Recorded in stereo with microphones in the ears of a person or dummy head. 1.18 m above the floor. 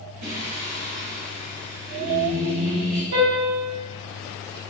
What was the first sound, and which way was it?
Singing, 75° right (ahead or behind).